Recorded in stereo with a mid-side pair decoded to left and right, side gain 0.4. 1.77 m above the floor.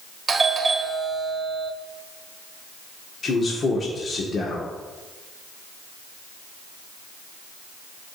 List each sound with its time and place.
0.3 s a doorbell: 30° right, 1.5 m
3.2 s a man speaking: 45° left, 1.8 m